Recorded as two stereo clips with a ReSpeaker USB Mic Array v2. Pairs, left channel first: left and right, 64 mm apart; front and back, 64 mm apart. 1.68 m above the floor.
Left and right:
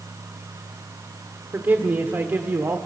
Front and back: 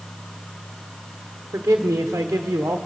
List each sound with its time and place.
1.5 s a man speaking: 135° right, 1.1 m